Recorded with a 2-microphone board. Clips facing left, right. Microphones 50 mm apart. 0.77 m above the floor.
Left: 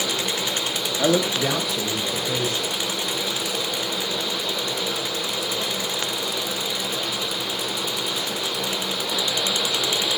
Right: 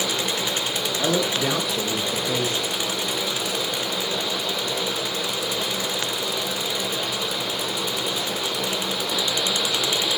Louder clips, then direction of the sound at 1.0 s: Left 3 dB; 25° left (ahead or behind).